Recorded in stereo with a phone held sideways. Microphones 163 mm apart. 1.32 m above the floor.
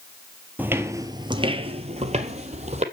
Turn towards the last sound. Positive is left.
turn(degrees=-40)  # may be behind; listen again after turning